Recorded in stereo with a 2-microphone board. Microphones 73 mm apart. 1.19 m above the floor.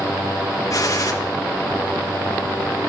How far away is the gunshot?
About 1.5 m.